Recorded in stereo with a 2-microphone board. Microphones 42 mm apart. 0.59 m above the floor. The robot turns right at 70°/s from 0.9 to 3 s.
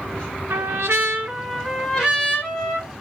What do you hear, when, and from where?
0.5 s a trumpet: 70° right, 2 m; by 2.9 s 70° left, 2 m